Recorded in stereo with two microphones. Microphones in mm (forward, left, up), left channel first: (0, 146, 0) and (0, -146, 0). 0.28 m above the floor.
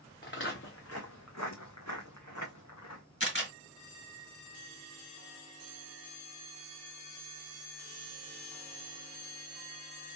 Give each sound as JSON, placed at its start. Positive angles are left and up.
{"t": 0.2, "sound": "footsteps", "side_deg": 35, "distance_m": 1.5}
{"t": 3.2, "sound": "a camera shutter", "side_deg": 45, "distance_m": 2.0}